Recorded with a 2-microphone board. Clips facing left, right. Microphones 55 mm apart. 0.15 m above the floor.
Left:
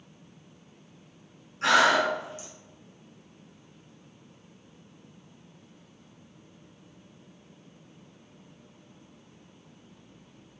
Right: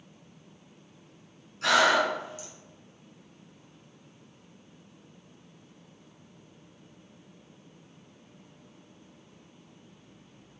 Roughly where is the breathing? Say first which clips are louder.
Left 1 dB; left.